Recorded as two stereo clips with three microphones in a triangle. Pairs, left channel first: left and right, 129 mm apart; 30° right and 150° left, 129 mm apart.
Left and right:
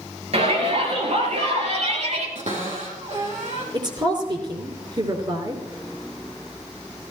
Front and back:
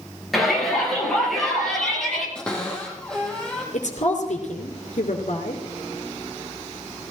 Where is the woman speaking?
40° right, 3 m.